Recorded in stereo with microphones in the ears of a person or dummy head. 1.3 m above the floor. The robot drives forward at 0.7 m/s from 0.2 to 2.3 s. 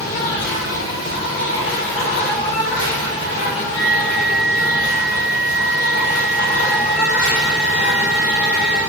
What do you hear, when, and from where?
0.0 s an insect: 65° left (ahead or behind), 1.3 m; by 8.9 s 45° left (ahead or behind), 1.6 m
3.7 s a flute: 25° left (ahead or behind), 1.4 m